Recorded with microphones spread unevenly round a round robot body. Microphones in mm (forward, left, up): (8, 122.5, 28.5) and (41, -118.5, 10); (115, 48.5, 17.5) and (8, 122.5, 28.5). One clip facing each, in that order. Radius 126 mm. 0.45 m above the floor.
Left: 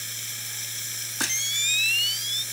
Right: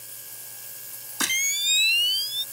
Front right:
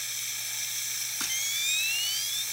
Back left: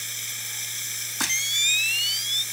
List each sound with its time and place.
0.0 s running water: 110° left
1.2 s a camera shutter: 170° right